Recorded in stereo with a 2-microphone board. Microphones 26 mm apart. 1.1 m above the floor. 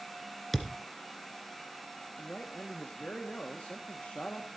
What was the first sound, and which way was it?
A thud, 10° left (ahead or behind).